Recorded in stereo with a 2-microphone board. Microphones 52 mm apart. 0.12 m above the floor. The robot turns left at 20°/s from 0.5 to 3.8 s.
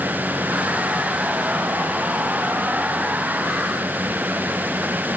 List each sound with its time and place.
Only background noise.